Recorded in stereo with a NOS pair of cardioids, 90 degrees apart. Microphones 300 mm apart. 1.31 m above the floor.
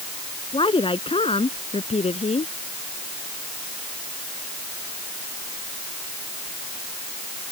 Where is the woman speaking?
20° left.